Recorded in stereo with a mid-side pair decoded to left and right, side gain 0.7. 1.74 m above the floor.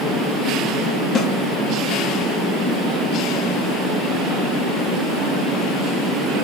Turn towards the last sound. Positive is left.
turn(degrees=40)